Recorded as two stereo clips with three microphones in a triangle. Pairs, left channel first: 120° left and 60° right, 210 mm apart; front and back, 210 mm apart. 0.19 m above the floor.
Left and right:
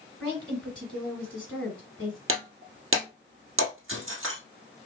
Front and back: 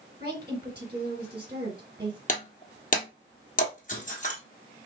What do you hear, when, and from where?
0.2 s a woman speaking: 150° right, 2.5 m
2.3 s breaking glass: 50° right, 1.5 m